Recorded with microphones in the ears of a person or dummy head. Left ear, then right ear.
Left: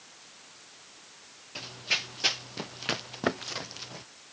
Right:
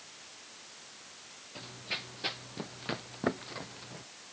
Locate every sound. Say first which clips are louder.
1.6 s running footsteps: left 9 dB; 80° left